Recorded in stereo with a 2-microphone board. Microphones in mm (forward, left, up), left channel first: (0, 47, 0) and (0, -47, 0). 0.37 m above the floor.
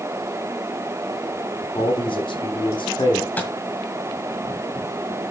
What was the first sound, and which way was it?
A man speaking, 70° left (ahead or behind).